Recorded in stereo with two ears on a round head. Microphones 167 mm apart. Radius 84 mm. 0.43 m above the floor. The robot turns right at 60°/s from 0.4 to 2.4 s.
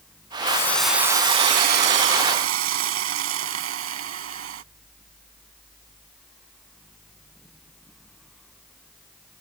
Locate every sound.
0.5 s a hiss: 155° left; by 4.6 s 85° right